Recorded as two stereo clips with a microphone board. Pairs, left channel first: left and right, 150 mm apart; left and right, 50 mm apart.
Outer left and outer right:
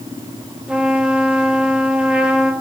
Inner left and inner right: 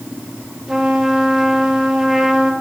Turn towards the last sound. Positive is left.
turn(degrees=-10)  # may be behind; listen again after turning